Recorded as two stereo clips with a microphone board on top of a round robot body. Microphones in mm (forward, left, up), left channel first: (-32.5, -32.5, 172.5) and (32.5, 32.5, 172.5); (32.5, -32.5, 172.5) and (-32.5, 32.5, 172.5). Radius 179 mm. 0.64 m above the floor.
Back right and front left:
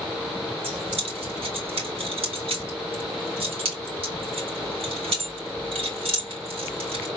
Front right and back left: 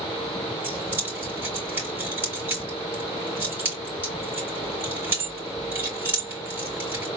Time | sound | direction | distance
0.6 | keys jangling | 65° left | 3 m